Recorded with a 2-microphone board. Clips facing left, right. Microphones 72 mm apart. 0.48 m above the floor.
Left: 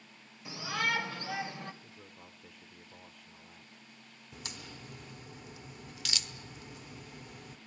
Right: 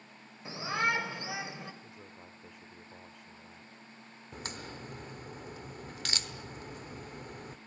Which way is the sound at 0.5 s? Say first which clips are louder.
Right 2 dB; 30° right (ahead or behind).